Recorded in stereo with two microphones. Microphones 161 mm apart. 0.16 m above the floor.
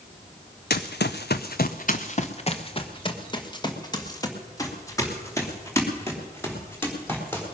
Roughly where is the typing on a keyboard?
I don't hear typing on a keyboard.